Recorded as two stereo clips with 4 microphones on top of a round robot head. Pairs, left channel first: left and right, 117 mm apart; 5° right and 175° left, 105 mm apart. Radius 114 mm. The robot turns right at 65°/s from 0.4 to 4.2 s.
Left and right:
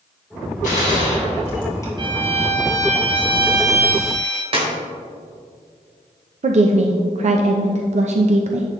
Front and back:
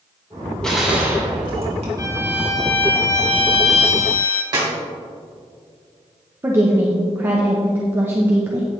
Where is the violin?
135° right, 1.4 m; by 4.4 s 10° left, 1.4 m.